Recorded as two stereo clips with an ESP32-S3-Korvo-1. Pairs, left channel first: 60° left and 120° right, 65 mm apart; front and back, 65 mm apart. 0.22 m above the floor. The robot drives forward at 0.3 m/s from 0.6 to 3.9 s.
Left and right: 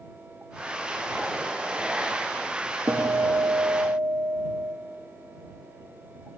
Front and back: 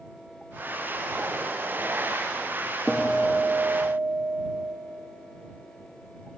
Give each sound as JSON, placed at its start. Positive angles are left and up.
{"t": 2.9, "sound": "a guitar", "azimuth_deg": -90, "distance_m": 3.0}